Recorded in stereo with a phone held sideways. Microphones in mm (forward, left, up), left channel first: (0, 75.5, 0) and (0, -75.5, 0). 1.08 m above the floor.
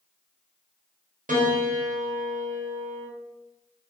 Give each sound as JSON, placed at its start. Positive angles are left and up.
{"t": 1.3, "sound": "a piano", "side_deg": -60, "distance_m": 0.5}